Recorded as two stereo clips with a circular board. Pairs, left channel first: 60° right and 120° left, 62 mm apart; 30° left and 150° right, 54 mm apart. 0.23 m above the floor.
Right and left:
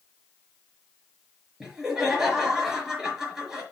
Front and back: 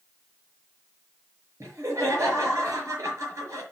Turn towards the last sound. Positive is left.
turn(degrees=-160)